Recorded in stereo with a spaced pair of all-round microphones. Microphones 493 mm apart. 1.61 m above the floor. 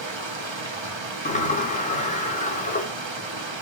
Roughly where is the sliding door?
Centre.